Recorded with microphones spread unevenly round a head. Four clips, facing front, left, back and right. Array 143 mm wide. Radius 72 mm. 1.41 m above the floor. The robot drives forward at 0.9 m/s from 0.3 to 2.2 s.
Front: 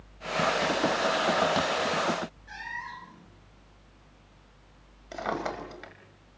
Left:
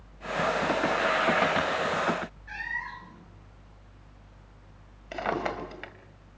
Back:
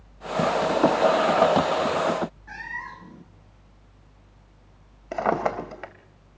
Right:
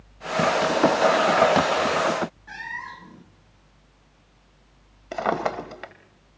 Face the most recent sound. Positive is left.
turn(degrees=-140)